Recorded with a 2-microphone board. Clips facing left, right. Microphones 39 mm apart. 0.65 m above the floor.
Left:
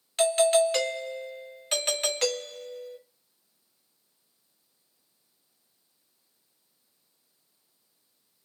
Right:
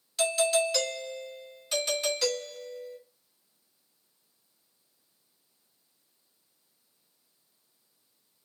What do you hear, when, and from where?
0.2 s a doorbell: 45° left (ahead or behind), 1.3 m